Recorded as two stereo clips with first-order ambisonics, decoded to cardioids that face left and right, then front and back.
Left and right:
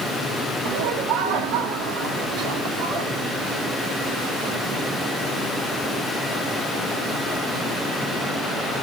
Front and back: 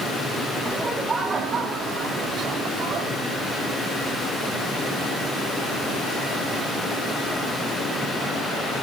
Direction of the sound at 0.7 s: 100° right.